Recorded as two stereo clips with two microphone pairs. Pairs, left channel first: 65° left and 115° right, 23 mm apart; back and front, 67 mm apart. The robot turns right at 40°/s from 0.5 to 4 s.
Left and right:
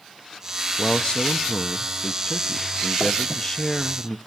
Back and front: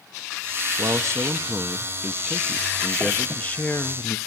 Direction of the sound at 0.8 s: 15° left.